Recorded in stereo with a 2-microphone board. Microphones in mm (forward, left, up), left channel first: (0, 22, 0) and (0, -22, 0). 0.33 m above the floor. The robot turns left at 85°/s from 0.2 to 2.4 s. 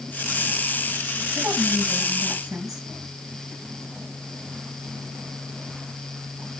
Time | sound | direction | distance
1.4 | a woman speaking | 85° right | 5 m